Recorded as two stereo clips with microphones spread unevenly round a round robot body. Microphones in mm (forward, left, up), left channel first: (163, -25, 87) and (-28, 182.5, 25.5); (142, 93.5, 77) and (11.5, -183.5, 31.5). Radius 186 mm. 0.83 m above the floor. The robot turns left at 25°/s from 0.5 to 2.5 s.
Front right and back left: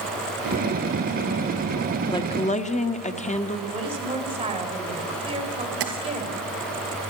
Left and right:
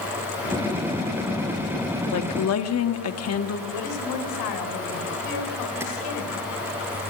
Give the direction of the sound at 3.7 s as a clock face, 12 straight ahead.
10 o'clock.